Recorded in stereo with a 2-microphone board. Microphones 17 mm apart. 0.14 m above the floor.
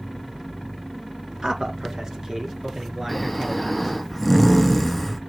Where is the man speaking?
45° right (ahead or behind), 2 m; by 3.9 s 20° right (ahead or behind), 2.5 m.